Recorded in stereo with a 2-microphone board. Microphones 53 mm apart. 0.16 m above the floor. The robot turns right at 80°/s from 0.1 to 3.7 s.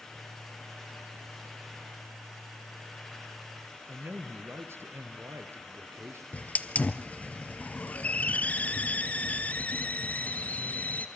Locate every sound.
3.9 s a man speaking: 55° right (ahead or behind), 3 m
6.3 s a hiss: 30° left (ahead or behind), 0.9 m